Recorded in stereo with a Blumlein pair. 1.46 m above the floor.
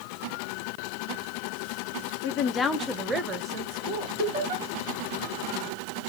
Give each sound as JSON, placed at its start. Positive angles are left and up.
{"t": 2.2, "sound": "a woman speaking", "azimuth_deg": 50, "distance_m": 0.8}
{"t": 4.2, "sound": "laughter", "azimuth_deg": -50, "distance_m": 3.5}